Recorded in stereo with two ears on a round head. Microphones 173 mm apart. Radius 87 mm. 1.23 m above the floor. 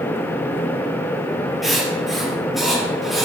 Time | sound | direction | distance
1.6 | writing | centre (ahead or behind) | 7 m